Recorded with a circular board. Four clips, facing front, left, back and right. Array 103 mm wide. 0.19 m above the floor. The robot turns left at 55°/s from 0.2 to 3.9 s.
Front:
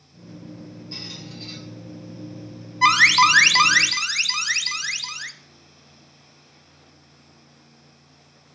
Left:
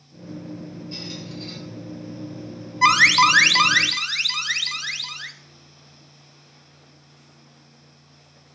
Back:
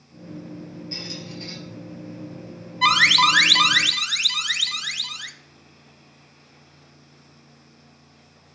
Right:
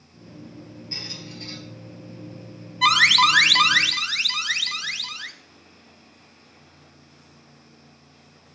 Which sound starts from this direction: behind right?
A squeak, at 0.9 s.